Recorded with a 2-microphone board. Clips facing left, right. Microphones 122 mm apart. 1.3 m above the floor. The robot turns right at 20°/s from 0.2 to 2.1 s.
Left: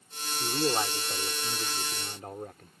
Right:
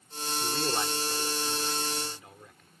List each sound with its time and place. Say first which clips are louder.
0.4 s a man speaking: left 3 dB; 20° left; by 2.7 s 50° left